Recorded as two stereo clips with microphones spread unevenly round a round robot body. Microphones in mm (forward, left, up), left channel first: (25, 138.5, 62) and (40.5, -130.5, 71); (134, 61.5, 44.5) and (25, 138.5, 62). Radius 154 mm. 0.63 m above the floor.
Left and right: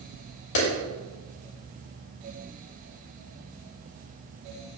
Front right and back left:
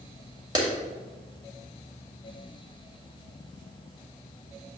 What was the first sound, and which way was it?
A clap, 85° left.